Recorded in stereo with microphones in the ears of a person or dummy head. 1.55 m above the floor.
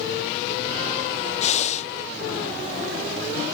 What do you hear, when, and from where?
1.4 s breathing: 35° left (ahead or behind)